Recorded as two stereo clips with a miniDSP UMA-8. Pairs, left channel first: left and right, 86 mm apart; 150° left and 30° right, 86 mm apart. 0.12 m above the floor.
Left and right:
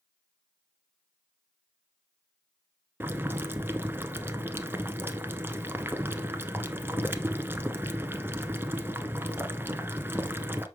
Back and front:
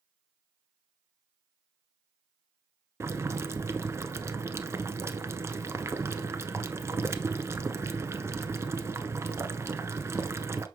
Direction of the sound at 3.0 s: 50° right.